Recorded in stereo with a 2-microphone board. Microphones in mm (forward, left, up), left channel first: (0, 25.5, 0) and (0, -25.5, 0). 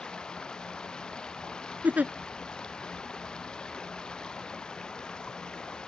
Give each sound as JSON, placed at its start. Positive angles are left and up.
{"t": 0.0, "sound": "running water", "side_deg": 15}
{"t": 1.8, "sound": "a giggle", "side_deg": -30}